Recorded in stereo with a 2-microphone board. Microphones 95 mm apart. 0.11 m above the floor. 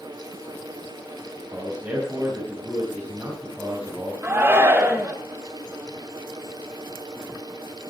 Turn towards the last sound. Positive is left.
turn(degrees=-25)  # may be behind; listen again after turning